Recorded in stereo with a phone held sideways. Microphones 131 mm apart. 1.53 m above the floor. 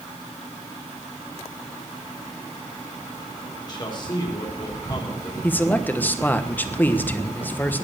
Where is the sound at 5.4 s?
15° left (ahead or behind), 1.2 m.